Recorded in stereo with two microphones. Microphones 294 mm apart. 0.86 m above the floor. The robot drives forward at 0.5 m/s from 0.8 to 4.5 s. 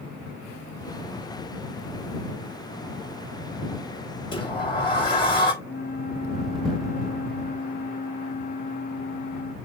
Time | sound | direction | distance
4.3 | a sliding door | 15° left (ahead or behind) | 3 m
5.6 | a flute | 30° left (ahead or behind) | 0.7 m